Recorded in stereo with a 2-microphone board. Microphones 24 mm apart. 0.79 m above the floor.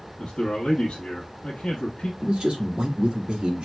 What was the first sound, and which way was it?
A man speaking, 40° left (ahead or behind).